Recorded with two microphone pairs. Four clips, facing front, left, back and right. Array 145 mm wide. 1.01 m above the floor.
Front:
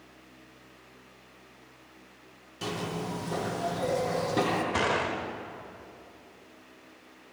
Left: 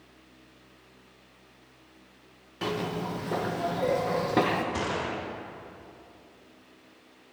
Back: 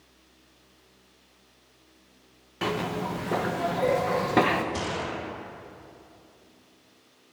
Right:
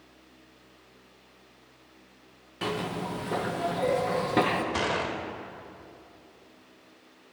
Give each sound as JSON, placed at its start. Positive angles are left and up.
{"t": 2.6, "sound": "a zipper", "azimuth_deg": 180, "distance_m": 0.7}
{"t": 4.7, "sound": "a gunshot", "azimuth_deg": -35, "distance_m": 1.1}